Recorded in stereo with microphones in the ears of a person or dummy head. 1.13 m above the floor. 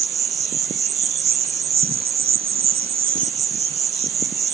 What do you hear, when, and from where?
0.0 s an insect: 15° right (ahead or behind)